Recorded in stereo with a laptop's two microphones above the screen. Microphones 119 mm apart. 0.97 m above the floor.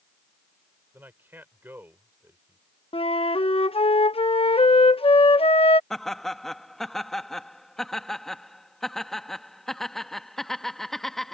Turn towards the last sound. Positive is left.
turn(degrees=5)  # may be behind; listen again after turning